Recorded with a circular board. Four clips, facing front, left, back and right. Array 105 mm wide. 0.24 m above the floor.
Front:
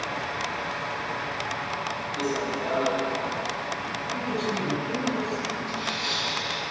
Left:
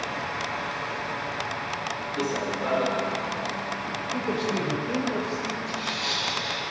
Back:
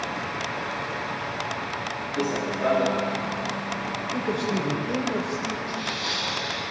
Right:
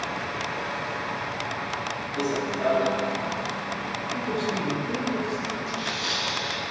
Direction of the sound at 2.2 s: 145° right.